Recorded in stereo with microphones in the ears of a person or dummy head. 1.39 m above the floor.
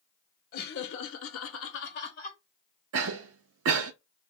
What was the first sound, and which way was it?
Laughter, 55° left (ahead or behind).